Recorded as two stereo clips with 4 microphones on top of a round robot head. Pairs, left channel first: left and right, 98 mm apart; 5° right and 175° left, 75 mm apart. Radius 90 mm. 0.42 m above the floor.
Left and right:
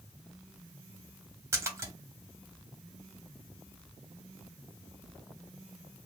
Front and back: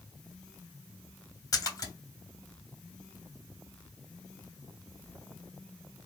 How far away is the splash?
About 1.8 m.